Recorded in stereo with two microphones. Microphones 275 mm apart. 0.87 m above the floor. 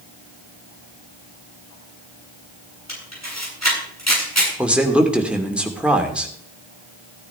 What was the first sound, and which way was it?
A camera shutter, 75° left (ahead or behind).